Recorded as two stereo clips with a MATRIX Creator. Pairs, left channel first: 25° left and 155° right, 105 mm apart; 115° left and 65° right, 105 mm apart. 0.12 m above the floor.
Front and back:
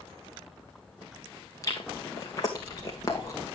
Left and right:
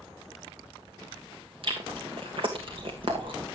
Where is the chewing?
35° right, 2.5 m.